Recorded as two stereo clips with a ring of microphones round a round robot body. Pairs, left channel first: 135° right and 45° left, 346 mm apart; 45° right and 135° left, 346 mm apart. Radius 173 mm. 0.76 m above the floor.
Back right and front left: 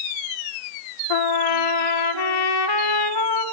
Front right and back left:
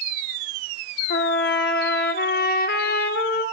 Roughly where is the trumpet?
Right.